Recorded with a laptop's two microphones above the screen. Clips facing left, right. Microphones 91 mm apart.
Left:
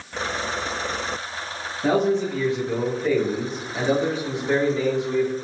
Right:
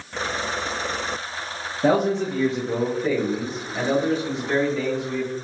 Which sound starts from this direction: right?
A man speaking, at 1.8 s.